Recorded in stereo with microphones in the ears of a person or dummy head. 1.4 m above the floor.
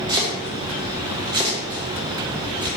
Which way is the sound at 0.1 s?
20° right (ahead or behind).